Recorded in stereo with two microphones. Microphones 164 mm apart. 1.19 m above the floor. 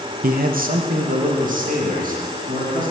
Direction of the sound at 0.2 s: 60° right (ahead or behind).